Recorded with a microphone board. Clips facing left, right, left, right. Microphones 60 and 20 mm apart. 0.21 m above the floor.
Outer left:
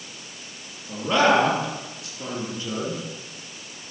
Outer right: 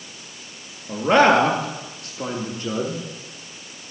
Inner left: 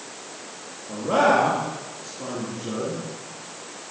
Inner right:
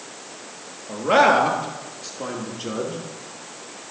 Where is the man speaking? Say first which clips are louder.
Outer right 4 dB, inner right 3 dB; 55° right (ahead or behind), 3 m; by 3.0 s 60° right (ahead or behind), 5 m.